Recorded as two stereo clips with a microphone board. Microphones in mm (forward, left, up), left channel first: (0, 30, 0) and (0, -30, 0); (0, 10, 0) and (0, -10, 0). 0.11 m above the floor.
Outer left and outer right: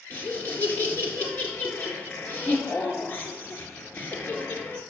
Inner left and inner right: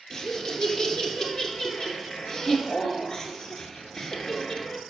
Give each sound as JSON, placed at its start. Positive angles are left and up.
{"t": 0.1, "sound": "laughter", "side_deg": 30, "distance_m": 1.8}